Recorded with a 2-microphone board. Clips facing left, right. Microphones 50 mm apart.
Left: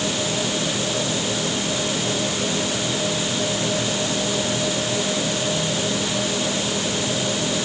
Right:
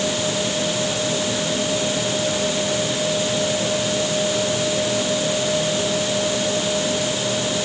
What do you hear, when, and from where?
Only background noise.